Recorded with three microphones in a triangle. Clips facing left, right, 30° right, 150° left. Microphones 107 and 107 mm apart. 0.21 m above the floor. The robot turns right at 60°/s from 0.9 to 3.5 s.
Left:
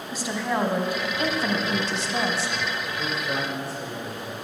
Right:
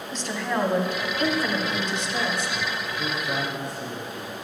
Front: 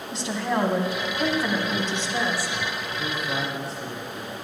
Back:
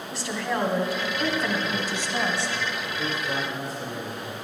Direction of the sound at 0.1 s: 20° left.